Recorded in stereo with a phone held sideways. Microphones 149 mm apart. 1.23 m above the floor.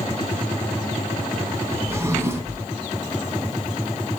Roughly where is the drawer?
Centre.